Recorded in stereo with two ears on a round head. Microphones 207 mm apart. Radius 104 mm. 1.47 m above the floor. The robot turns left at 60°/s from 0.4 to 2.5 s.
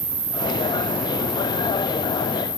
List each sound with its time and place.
0.0 s an insect: 130° right, 7 m; by 2.6 s 105° left, 7 m